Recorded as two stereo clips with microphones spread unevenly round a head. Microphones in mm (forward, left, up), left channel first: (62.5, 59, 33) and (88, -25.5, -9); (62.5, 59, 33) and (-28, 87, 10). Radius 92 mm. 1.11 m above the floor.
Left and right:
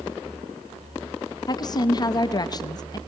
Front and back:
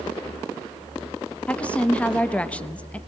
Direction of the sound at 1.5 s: 60° left.